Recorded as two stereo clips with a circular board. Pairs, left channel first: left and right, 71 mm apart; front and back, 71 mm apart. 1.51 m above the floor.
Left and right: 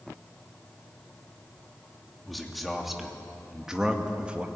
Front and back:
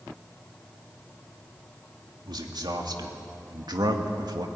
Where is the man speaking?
Straight behind, 3 m; by 4.5 s 160° right, 1.8 m.